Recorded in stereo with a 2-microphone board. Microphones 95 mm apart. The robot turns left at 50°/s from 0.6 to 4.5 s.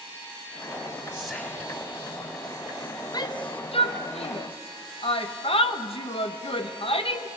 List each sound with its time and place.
1.1 s whispering: 170° right, 4 m; by 1.8 s 160° left, 4 m
3.1 s a shout: 40° left (ahead or behind), 1.4 m; by 7.3 s 70° left (ahead or behind), 1.4 m